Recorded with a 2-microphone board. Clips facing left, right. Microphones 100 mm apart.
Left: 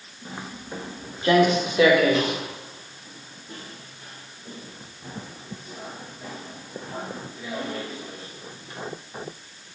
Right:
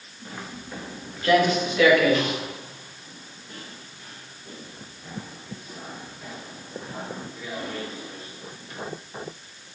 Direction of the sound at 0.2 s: 15° left (ahead or behind).